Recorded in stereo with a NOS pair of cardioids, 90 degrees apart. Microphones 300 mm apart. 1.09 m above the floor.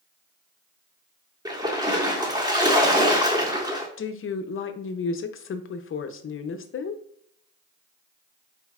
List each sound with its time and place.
1.4 s a splash: 15° right, 1.4 m
4.0 s a woman speaking: 45° left, 0.7 m